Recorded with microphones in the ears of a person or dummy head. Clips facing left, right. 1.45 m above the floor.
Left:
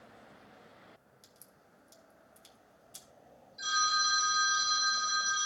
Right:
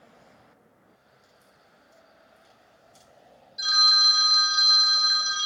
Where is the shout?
I don't hear a shout.